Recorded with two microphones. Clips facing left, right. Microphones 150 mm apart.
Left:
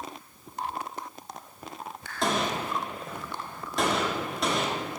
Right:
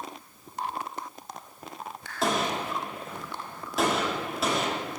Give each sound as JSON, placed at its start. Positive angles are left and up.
{"t": 2.2, "sound": "a gunshot", "side_deg": -5, "distance_m": 1.8}